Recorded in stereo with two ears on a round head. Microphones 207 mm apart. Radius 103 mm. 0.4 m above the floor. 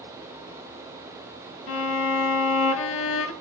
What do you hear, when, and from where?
1.7 s a violin: 60° left (ahead or behind), 0.9 m